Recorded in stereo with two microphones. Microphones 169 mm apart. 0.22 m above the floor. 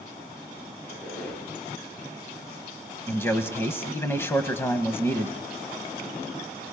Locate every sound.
0.8 s a squeak: 10° left (ahead or behind), 5 m
3.1 s a man speaking: 15° left (ahead or behind), 1.0 m